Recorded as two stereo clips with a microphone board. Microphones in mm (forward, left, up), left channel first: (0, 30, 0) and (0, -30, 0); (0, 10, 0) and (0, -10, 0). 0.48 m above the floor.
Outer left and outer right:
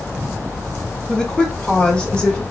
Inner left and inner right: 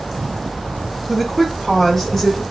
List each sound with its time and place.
1.1 s a woman speaking: 10° left (ahead or behind), 0.8 m; by 2.4 s 20° left (ahead or behind), 1.7 m